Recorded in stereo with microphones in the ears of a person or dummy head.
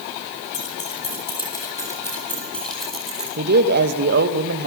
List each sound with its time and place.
0.5 s keys jangling: 35° left (ahead or behind), 5 m; by 3.3 s 5° right (ahead or behind), 5 m
3.4 s a man speaking: 55° right (ahead or behind), 2.5 m